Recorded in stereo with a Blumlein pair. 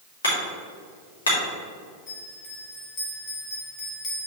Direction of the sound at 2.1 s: 30° left.